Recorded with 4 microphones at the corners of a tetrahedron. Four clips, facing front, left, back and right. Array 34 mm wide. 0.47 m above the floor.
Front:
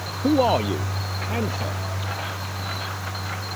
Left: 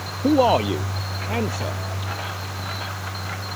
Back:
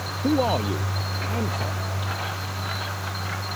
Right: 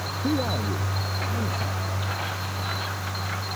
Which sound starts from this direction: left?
A man speaking, at 0.2 s.